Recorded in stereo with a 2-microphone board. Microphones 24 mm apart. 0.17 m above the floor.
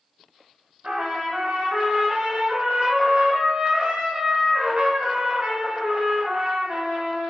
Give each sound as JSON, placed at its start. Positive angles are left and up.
{"t": 0.8, "sound": "a trumpet", "side_deg": -50, "distance_m": 0.7}